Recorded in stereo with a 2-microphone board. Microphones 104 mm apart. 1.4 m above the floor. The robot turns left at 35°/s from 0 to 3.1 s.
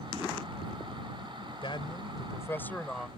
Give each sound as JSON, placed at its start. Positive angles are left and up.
{"t": 1.6, "sound": "a man speaking", "azimuth_deg": 55}